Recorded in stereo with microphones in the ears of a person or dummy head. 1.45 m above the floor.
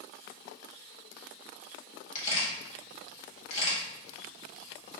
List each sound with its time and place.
2.1 s a camera shutter: 35° left (ahead or behind), 1.6 m